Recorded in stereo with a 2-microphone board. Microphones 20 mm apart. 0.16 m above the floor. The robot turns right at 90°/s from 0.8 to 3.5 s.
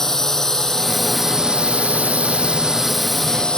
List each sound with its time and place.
0.0 s a drone: 160° left; by 3.6 s 45° left